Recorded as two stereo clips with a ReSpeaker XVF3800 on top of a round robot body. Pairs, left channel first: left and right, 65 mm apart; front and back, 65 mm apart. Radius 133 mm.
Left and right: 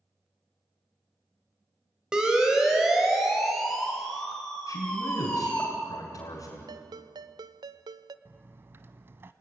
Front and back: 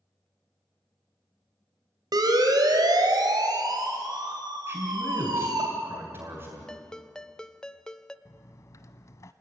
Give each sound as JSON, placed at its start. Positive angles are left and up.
{"t": 2.1, "sound": "a siren", "azimuth_deg": -170, "distance_m": 4.0}
{"t": 4.7, "sound": "a man speaking", "azimuth_deg": 125, "distance_m": 3.5}
{"t": 6.7, "sound": "a ringtone", "azimuth_deg": -80, "distance_m": 0.8}
{"t": 8.2, "sound": "a dropped coin", "azimuth_deg": -40, "distance_m": 0.6}